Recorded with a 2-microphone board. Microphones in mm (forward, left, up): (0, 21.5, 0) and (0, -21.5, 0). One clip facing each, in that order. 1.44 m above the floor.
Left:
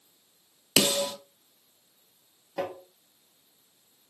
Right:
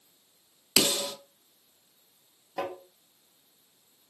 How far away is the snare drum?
About 1.0 m.